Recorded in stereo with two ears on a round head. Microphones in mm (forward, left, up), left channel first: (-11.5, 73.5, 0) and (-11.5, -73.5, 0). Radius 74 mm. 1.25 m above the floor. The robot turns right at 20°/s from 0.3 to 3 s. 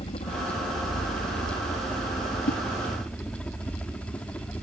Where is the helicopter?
35° left (ahead or behind); by 4.6 s 10° left (ahead or behind).